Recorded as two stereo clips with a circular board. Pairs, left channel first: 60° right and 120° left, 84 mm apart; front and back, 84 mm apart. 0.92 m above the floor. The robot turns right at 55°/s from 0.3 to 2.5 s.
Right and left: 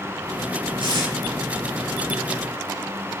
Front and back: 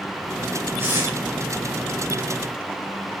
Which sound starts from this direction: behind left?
Tape being pulled, at 0.8 s.